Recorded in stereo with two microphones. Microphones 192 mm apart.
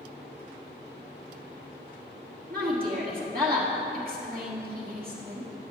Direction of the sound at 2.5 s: 50° right (ahead or behind).